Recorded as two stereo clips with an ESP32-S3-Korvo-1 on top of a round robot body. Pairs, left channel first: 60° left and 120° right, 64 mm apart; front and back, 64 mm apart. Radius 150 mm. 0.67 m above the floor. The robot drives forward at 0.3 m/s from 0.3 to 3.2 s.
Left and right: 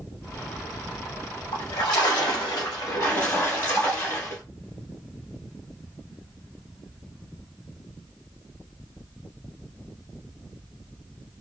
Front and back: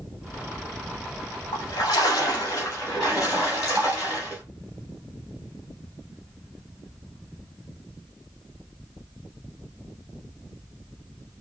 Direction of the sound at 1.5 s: 25° left.